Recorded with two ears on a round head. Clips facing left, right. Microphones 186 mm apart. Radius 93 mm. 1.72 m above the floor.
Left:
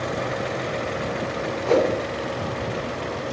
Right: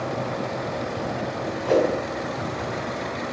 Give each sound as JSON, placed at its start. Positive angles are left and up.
{"t": 1.6, "sound": "a whoosh", "side_deg": -10, "distance_m": 3.5}